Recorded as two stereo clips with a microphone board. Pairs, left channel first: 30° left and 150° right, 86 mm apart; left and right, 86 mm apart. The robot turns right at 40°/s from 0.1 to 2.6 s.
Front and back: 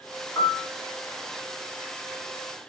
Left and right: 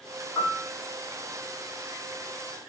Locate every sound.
0.3 s a piano: 60° left, 1.8 m; by 0.7 s 70° left, 1.8 m